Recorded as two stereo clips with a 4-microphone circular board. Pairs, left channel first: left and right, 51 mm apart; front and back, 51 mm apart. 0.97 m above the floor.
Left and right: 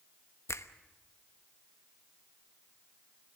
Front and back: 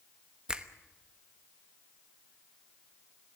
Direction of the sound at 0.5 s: 110° left.